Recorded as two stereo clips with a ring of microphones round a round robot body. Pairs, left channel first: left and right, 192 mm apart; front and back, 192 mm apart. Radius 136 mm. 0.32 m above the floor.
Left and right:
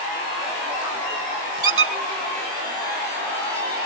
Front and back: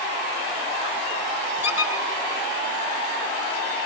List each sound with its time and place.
1.6 s a squeak: 100° right, 2 m